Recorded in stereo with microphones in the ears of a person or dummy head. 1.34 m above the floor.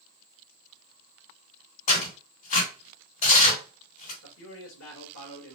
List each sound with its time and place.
1.9 s tearing paper: 45° left (ahead or behind), 3 m
4.2 s a man speaking: 85° left, 2 m